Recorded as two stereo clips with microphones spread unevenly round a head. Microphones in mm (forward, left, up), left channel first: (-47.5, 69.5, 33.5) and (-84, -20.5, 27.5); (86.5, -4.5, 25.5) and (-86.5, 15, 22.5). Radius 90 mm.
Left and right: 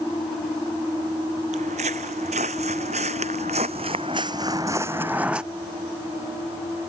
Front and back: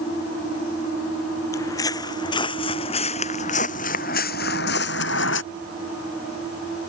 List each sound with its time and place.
1.5 s footsteps: 80° right; by 5.4 s 25° right